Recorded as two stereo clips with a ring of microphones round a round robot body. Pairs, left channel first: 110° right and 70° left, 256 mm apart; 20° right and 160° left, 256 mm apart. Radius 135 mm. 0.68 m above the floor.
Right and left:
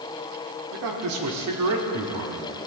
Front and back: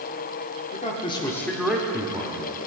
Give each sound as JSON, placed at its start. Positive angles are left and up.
{"t": 0.7, "sound": "a man speaking", "azimuth_deg": 40, "distance_m": 1.6}